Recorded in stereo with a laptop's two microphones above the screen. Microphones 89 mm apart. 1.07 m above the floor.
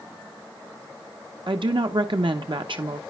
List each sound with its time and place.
1.5 s a woman speaking: 65° right (ahead or behind), 1.0 m